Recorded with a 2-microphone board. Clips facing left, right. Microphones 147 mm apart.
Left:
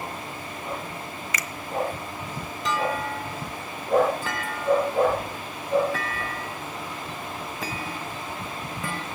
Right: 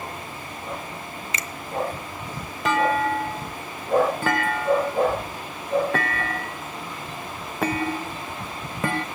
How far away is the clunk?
About 0.5 m.